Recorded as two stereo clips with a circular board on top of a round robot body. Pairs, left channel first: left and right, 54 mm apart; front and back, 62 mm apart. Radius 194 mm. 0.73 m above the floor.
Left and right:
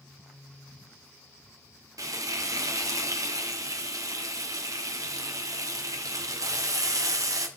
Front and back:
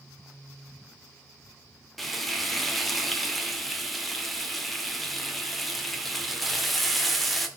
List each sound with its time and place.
2.0 s frying: 90° right, 1.9 m